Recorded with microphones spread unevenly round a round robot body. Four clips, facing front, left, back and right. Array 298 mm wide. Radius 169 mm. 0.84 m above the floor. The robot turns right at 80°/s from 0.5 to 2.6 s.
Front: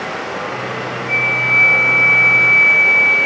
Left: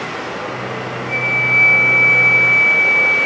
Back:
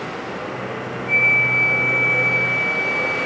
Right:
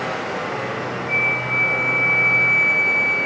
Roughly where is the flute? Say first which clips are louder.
Left 3 dB, even; behind.